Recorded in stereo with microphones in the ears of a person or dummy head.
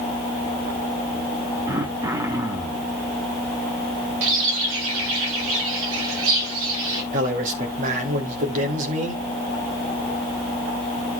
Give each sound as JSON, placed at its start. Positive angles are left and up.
{"t": 1.7, "sound": "throat clearing", "side_deg": -15, "distance_m": 1.1}
{"t": 4.2, "sound": "a bird", "side_deg": -65, "distance_m": 2.5}
{"t": 7.1, "sound": "a man speaking", "side_deg": -35, "distance_m": 3.0}